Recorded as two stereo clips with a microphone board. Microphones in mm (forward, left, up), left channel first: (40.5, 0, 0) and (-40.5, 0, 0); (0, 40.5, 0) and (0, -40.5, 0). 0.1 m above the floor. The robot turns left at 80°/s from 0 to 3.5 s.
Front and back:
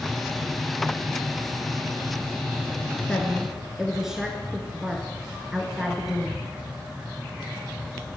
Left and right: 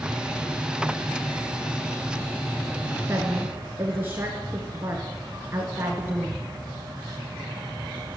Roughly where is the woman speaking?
Ahead right.